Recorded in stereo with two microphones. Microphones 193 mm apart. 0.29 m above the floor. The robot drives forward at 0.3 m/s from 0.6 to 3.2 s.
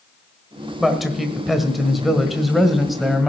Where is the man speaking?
Centre (ahead or behind), 1.4 m.